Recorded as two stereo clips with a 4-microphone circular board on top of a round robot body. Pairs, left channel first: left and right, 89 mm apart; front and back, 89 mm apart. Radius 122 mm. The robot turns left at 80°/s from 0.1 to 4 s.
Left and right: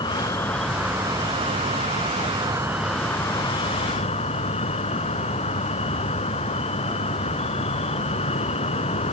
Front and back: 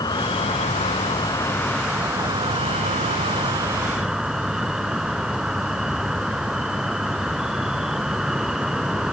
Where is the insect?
50° left; by 9.1 s 95° left.